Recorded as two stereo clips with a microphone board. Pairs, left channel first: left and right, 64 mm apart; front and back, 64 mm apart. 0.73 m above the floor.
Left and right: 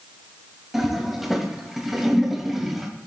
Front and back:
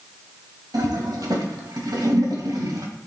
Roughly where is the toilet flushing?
Behind.